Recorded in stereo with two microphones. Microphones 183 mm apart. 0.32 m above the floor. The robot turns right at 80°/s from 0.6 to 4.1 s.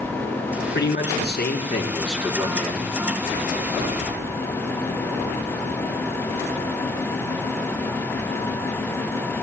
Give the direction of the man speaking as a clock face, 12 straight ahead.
10 o'clock.